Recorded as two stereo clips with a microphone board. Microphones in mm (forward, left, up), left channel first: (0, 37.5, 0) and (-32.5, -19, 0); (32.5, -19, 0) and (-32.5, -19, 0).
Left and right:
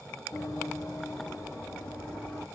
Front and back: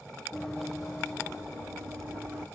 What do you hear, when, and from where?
0.3 s running footsteps: 75° left, 0.9 m; by 2.5 s 120° left, 1.6 m